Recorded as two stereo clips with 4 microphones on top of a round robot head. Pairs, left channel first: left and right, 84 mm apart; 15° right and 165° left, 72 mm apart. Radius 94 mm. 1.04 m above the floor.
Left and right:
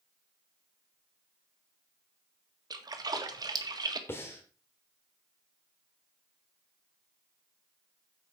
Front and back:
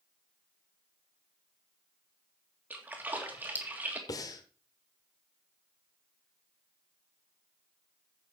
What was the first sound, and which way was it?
A splash, 125° right.